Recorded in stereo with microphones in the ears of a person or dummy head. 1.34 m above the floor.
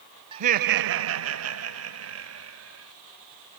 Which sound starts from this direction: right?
Laughter, at 0.3 s.